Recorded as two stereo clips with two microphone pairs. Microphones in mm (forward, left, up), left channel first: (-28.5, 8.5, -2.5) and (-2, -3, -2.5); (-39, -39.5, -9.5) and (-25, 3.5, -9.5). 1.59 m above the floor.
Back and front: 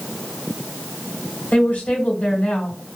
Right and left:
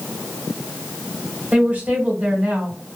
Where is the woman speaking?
130° left, 1.4 m.